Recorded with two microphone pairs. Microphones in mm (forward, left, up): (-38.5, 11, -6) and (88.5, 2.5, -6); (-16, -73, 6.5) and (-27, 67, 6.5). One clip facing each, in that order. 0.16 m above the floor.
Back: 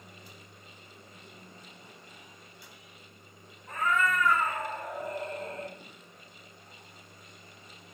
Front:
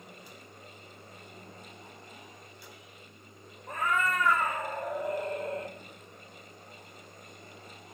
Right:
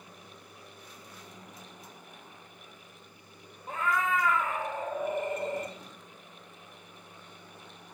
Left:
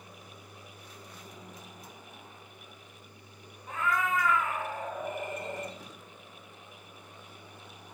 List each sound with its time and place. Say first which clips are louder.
3.7 s a cat meowing: back 1 dB, right 1 dB; 30° right, 0.8 m